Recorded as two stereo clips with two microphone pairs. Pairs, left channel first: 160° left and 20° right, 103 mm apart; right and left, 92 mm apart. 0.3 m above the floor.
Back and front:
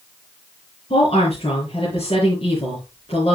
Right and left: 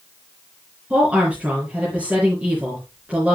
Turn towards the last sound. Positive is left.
turn(degrees=165)